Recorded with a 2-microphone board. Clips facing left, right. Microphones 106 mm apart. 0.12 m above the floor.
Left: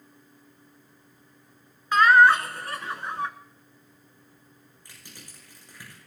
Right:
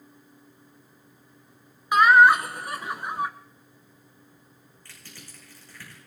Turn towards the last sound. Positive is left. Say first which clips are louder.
# right 1 dB
turn(degrees=20)  # may be behind; listen again after turning